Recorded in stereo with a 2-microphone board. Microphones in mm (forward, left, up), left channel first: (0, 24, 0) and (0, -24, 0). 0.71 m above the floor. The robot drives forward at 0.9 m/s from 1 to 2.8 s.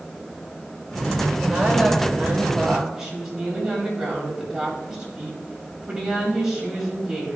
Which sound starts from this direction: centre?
A woman speaking, at 1.4 s.